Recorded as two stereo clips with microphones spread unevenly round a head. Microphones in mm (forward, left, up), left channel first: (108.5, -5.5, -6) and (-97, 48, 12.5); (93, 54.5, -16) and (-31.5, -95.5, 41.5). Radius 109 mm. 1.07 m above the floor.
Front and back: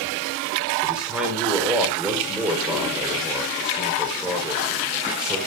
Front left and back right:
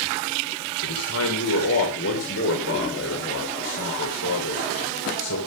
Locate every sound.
0.8 s a man speaking: 80° left, 3 m